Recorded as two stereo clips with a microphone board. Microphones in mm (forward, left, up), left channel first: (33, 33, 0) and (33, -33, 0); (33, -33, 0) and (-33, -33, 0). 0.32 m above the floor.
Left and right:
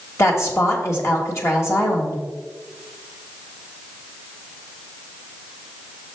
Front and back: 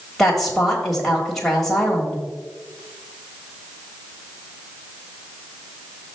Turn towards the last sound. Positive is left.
turn(degrees=85)